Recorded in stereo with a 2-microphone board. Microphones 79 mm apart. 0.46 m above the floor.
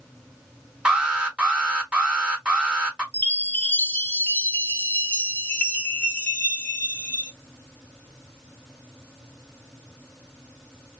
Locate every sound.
0.8 s an alarm: 10° right (ahead or behind), 0.9 m
3.1 s a chime: 20° left (ahead or behind), 0.6 m